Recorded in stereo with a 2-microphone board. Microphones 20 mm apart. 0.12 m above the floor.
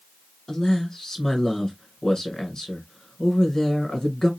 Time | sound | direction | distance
0.5 | a man speaking | 30° left (ahead or behind) | 1.1 m